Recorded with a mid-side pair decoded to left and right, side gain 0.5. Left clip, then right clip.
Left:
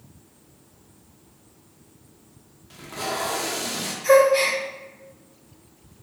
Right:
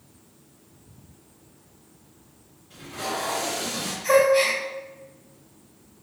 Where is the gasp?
25° left, 1.5 m.